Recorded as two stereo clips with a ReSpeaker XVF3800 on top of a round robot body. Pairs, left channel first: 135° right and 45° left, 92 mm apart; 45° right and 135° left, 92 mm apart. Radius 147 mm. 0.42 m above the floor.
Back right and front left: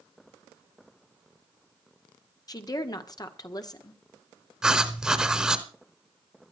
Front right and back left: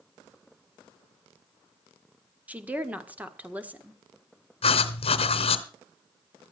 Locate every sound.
2.5 s a woman speaking: 155° right, 1.8 m
4.6 s writing: 40° right, 0.9 m